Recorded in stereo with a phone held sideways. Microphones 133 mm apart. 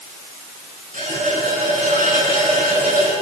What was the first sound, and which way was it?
A running tap, 65° right (ahead or behind).